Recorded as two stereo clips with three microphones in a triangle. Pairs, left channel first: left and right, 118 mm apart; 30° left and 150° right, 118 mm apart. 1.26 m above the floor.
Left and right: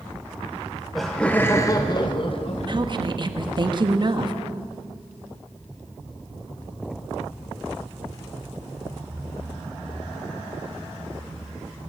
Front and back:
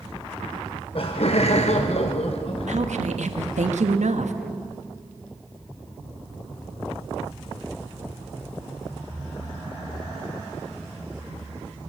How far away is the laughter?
About 1.1 m.